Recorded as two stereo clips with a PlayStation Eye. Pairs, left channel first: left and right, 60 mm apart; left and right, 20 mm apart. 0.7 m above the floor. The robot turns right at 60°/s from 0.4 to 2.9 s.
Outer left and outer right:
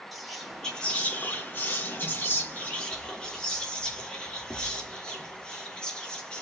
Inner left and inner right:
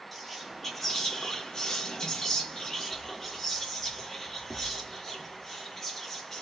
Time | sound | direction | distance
0.1 | whispering | 5° left | 1.3 m